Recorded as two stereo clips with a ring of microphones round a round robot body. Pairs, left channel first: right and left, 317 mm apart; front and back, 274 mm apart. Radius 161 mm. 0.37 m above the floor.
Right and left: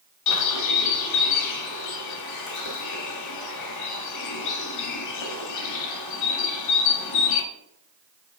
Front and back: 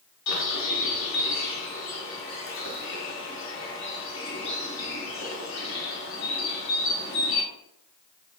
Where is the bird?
55° right, 0.7 m.